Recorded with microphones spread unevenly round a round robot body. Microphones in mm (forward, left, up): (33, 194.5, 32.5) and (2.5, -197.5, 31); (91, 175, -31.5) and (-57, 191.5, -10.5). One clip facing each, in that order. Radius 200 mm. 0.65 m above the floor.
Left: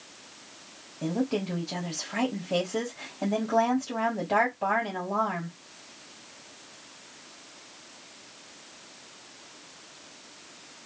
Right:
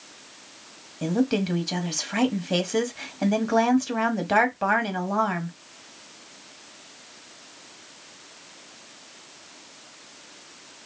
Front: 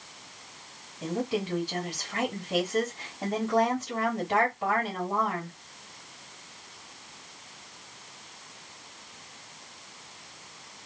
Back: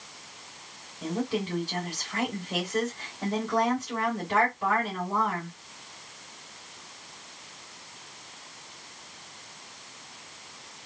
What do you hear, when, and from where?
1.0 s a woman speaking: 75° right, 1.1 m